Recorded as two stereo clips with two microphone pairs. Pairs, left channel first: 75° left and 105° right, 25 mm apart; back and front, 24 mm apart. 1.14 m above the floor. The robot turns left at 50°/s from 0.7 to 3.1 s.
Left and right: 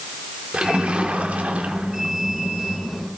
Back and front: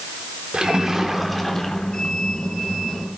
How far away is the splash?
About 3.5 m.